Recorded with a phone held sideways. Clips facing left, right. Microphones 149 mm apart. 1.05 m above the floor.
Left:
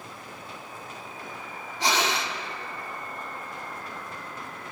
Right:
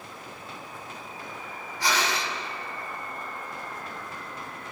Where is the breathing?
25° left (ahead or behind), 1.5 m.